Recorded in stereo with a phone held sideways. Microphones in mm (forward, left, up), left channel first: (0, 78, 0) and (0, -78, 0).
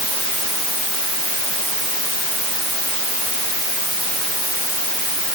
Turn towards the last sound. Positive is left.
No sound to turn to.